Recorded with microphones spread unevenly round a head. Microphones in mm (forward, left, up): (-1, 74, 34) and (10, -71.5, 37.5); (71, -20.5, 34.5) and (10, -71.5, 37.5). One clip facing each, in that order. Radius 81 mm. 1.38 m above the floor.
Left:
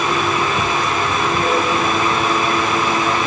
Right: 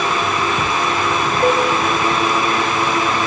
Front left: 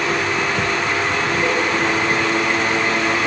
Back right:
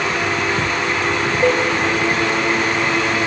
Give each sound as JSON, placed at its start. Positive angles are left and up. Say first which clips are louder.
{"t": 1.4, "sound": "dishes clattering", "louder": "right 6 dB, back right 6 dB", "azimuth_deg": -150, "distance_m": 5.5}